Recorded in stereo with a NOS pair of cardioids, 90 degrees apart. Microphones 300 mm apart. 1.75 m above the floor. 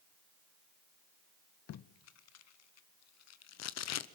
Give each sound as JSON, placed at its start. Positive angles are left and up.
{"t": 1.7, "sound": "tape being pulled", "azimuth_deg": 60, "distance_m": 1.0}